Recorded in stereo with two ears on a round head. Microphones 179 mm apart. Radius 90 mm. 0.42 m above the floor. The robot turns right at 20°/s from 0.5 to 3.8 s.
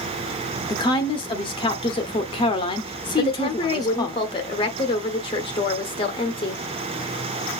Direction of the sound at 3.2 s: 30° left (ahead or behind).